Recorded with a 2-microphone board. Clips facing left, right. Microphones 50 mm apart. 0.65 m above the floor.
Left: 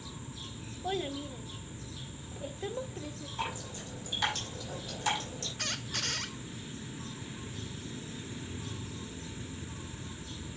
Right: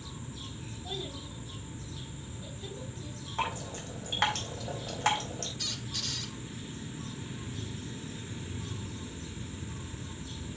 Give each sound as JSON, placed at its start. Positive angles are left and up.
{"t": 0.8, "sound": "a child speaking", "side_deg": 50, "distance_m": 1.3}
{"t": 3.4, "sound": "dripping", "side_deg": -55, "distance_m": 4.0}
{"t": 5.6, "sound": "a squeak", "side_deg": 55, "distance_m": 0.9}